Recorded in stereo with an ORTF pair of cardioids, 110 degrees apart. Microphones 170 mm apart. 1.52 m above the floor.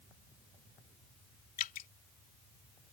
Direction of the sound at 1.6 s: 55° left.